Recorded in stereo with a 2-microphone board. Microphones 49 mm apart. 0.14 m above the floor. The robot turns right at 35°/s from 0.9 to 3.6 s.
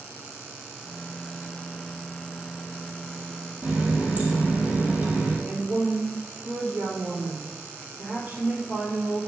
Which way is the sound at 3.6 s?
30° right (ahead or behind).